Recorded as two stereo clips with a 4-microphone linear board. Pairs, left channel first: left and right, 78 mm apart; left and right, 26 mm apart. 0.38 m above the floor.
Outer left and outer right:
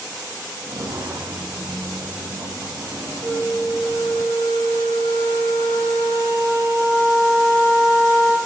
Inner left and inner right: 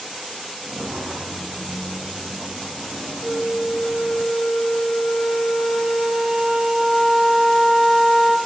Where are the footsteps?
55° right (ahead or behind), 0.7 m; by 4.2 s 85° right, 5 m.